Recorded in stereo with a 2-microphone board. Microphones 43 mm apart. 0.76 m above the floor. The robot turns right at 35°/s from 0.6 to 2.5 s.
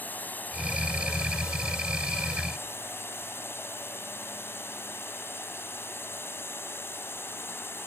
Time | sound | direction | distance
0.0 | a drone | 45° left | ?